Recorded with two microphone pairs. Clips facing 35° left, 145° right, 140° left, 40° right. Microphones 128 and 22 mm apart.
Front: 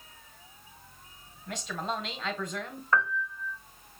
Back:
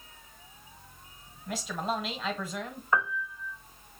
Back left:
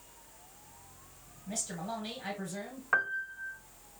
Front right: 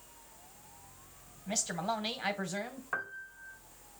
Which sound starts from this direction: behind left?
A piano, at 2.9 s.